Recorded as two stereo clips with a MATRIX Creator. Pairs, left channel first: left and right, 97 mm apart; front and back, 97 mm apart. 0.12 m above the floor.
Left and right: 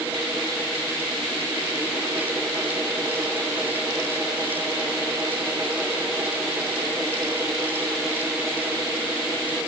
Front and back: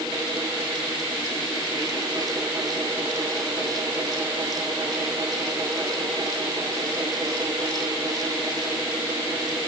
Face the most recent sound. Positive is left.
No sound to turn to.